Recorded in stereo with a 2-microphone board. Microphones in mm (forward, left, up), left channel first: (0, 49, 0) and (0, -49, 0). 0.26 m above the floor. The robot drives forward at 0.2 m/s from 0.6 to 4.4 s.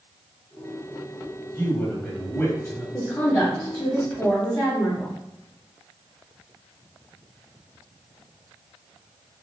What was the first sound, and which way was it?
A man speaking, 20° left (ahead or behind).